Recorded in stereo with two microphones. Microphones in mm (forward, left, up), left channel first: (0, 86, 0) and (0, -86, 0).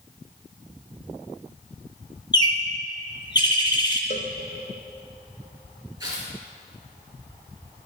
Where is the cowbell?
50° left (ahead or behind), 0.6 m.